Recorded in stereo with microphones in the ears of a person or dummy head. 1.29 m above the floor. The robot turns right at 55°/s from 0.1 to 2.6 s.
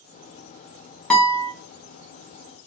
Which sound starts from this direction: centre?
A guitar, at 1.1 s.